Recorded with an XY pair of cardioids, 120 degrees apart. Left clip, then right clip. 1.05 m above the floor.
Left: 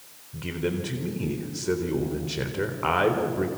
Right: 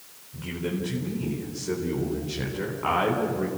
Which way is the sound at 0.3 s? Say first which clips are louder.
Left 2 dB; 30° left.